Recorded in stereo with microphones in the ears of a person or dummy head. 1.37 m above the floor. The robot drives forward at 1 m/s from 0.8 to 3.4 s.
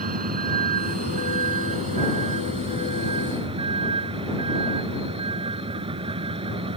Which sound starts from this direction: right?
A vehicle, at 0.0 s.